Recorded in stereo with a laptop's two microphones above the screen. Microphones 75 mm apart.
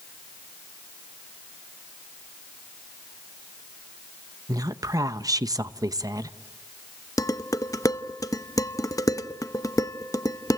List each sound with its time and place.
4.5 s a woman speaking: 50° right (ahead or behind), 1.0 m
7.2 s dishes clattering: 50° left (ahead or behind), 0.7 m